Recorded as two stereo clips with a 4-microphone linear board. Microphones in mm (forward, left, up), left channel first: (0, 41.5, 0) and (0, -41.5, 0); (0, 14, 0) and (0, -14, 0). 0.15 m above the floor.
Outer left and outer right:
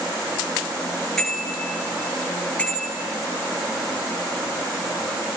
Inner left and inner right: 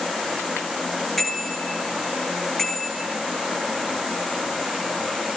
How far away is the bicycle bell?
About 7.5 m.